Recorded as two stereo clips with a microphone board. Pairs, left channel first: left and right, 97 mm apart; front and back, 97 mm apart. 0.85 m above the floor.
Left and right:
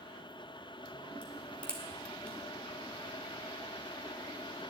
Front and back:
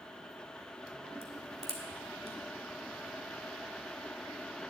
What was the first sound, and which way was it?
A crack, 170° left.